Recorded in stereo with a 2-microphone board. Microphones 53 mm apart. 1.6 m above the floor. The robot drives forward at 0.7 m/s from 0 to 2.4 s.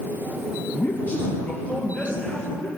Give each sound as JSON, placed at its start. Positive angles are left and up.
{"t": 0.8, "sound": "a man speaking", "side_deg": 45, "distance_m": 0.9}